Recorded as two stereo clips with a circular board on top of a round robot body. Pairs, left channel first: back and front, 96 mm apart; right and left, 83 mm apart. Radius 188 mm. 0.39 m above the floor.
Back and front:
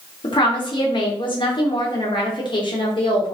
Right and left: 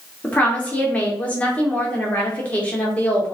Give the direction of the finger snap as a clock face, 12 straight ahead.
I don't hear a finger snap.